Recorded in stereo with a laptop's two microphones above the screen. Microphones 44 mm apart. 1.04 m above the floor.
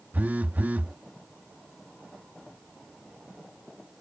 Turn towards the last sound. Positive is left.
turn(degrees=-40)  # may be behind; listen again after turning